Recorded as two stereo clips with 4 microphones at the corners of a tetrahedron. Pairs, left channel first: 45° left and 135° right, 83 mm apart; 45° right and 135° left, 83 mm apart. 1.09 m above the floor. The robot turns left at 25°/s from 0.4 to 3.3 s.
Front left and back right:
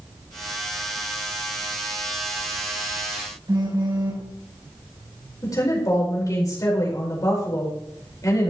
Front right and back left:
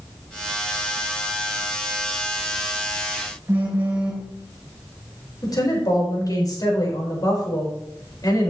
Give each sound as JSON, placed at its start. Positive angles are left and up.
{"t": 3.5, "sound": "a phone buzzing", "azimuth_deg": -160, "distance_m": 3.5}
{"t": 5.4, "sound": "a woman speaking", "azimuth_deg": -5, "distance_m": 4.5}